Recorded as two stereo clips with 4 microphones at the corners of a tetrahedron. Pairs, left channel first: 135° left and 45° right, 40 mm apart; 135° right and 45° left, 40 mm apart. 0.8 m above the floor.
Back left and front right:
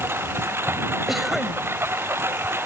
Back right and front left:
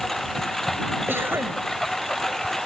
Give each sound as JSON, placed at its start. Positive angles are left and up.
{"t": 0.0, "sound": "a lawn mower", "azimuth_deg": -55}
{"t": 1.1, "sound": "a cough", "azimuth_deg": 40}